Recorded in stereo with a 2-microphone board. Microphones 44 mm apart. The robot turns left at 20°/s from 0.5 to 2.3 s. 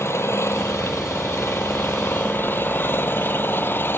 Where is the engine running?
90° left; by 4.0 s 55° left.